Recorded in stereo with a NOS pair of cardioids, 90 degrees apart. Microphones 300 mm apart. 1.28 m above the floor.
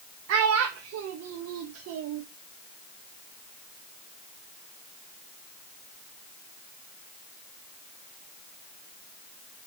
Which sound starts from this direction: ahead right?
A child speaking, at 0.3 s.